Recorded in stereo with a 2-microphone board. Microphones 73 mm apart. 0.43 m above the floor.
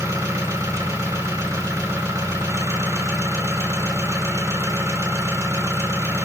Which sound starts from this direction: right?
An engine running, at 0.0 s.